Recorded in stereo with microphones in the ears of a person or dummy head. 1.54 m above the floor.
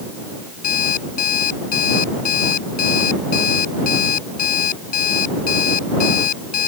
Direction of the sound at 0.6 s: 50° left (ahead or behind).